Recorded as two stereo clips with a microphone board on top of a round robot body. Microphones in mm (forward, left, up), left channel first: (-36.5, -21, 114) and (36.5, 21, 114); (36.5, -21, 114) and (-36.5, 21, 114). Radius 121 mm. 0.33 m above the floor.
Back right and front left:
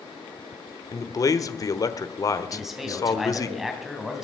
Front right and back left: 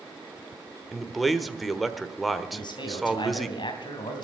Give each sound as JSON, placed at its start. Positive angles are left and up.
{"t": 0.9, "sound": "a man speaking", "azimuth_deg": -120, "distance_m": 1.2}
{"t": 2.5, "sound": "a man speaking", "azimuth_deg": -55, "distance_m": 3.0}